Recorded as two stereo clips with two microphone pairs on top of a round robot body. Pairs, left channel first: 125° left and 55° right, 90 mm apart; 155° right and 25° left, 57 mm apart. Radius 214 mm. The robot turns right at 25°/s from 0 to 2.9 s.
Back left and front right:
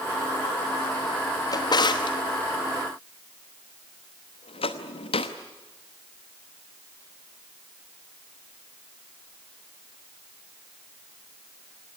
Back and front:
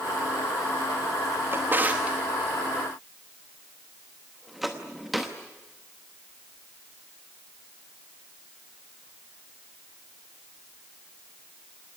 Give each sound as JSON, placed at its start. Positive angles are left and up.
{"t": 1.5, "sound": "a drawer", "azimuth_deg": 80, "distance_m": 0.8}